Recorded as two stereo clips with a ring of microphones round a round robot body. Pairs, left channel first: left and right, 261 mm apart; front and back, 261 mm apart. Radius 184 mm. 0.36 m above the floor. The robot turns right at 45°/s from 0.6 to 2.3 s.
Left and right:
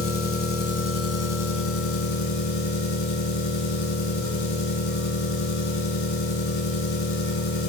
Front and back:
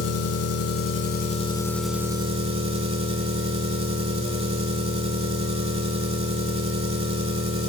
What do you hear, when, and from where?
0.0 s an engine running: 35° left, 1.0 m; by 7.7 s 110° left, 1.0 m